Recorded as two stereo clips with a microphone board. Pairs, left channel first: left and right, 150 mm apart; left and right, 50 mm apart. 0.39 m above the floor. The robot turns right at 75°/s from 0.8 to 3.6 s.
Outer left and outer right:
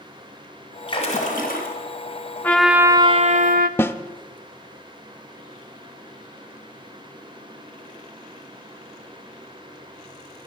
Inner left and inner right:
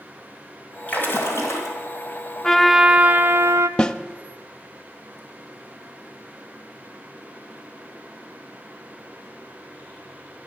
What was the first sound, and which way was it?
A splash, 30° left.